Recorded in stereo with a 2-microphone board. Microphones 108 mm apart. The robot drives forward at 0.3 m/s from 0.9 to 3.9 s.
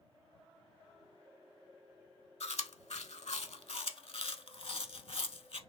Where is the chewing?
70° left (ahead or behind), 0.6 m; by 5.6 s 65° left (ahead or behind), 0.6 m.